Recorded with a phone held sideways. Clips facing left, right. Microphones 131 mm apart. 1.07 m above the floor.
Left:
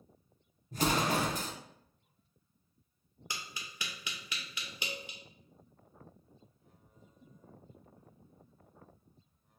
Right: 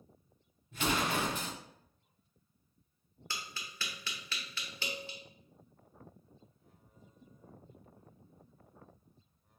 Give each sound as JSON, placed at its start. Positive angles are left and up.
{"t": 0.7, "sound": "an explosion", "side_deg": 40, "distance_m": 0.5}
{"t": 3.3, "sound": "tapping", "side_deg": 15, "distance_m": 0.6}